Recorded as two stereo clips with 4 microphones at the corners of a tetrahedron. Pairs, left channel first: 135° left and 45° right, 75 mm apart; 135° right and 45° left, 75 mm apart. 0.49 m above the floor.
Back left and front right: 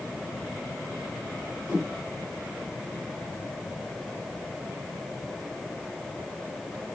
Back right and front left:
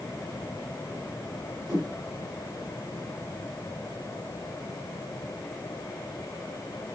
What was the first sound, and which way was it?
A whoosh, 20° left.